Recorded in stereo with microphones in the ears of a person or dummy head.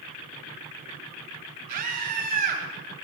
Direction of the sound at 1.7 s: 45° right (ahead or behind).